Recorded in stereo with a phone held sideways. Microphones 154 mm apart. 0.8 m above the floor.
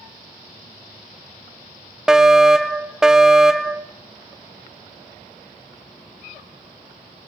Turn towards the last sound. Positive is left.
turn(degrees=-5)  # may be behind; listen again after turning